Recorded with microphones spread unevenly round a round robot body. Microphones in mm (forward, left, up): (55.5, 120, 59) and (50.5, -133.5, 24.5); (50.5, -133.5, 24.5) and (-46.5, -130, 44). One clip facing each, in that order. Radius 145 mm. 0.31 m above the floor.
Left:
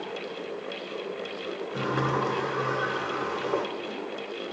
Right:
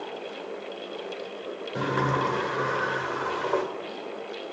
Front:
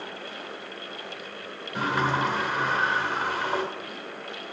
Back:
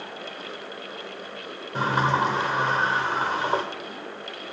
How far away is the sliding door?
About 1.0 m.